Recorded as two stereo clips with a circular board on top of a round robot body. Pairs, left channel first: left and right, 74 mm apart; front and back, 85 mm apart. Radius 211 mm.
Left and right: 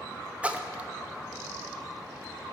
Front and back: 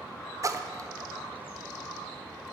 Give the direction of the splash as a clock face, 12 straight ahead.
5 o'clock.